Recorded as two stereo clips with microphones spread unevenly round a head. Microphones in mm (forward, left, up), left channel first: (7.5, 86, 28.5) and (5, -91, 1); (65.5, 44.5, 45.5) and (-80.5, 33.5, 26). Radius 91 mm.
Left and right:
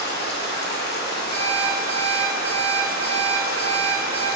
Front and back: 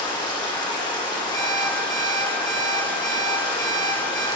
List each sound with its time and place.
0.0 s running water: 60° left, 1.2 m
1.3 s an alarm clock: 55° right, 1.4 m